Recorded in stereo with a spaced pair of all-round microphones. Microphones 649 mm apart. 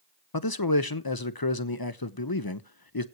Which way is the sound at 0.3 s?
35° left (ahead or behind).